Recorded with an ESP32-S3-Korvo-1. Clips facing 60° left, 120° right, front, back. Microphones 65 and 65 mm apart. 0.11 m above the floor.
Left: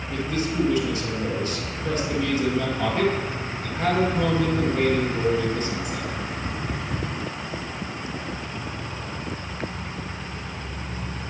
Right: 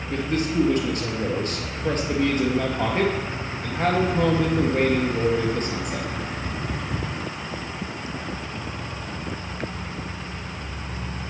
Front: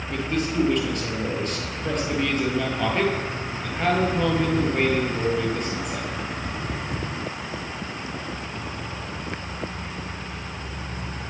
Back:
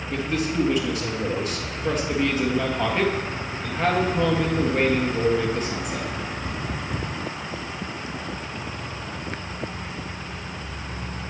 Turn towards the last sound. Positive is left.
turn(degrees=-95)